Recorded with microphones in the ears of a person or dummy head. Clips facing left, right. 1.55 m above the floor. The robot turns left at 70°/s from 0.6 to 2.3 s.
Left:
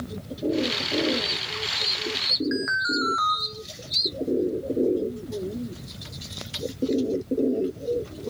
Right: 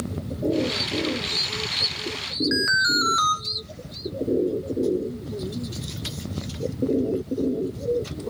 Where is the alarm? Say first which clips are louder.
Right 1 dB; 40° right (ahead or behind), 1.8 m.